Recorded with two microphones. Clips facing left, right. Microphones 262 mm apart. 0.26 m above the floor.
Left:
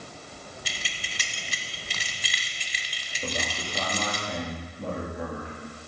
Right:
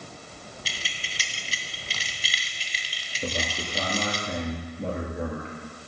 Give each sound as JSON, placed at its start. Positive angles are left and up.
{"t": 0.7, "sound": "keys jangling", "side_deg": 55, "distance_m": 1.2}
{"t": 3.2, "sound": "a man speaking", "side_deg": -25, "distance_m": 3.5}